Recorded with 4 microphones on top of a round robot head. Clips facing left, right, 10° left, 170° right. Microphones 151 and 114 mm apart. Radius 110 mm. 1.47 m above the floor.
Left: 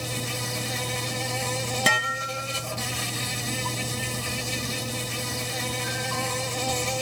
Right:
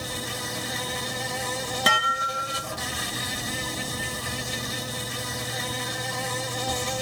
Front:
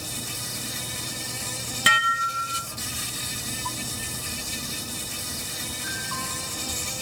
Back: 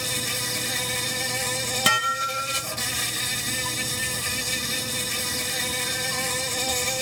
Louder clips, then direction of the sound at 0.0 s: Left 1 dB, back 5 dB; 170° left.